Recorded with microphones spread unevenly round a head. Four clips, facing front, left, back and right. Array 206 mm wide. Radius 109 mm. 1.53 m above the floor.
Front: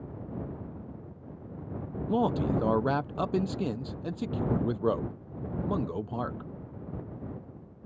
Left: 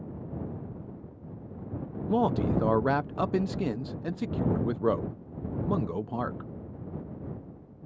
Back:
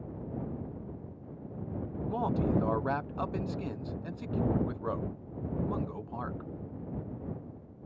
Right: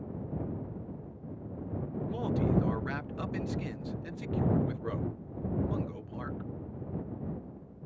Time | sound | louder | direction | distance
2.1 | a man speaking | left 5 dB, front 3 dB | 60° left | ?